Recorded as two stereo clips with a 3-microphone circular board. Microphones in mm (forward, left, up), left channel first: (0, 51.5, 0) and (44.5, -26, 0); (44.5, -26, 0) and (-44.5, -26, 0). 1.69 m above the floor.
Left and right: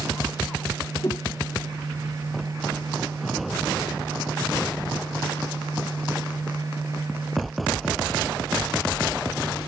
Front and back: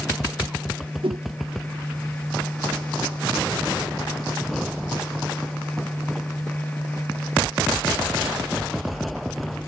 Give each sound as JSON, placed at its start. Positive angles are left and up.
{"t": 1.0, "sound": "a whoosh", "azimuth_deg": 175}